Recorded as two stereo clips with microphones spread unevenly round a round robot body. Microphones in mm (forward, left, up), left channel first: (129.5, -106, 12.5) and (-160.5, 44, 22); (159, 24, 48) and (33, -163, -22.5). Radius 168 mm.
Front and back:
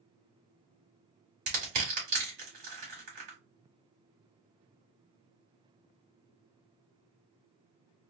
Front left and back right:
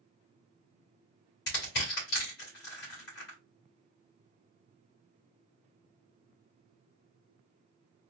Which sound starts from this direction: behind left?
Crushing, at 1.5 s.